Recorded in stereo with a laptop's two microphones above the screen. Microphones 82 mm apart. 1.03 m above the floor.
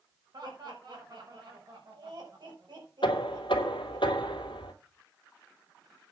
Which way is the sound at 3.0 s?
85° left.